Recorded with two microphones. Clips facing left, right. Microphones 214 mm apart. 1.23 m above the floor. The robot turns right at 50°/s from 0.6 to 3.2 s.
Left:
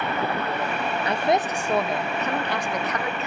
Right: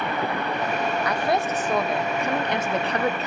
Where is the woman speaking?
135° left, 0.7 m; by 3.3 s 115° right, 0.7 m.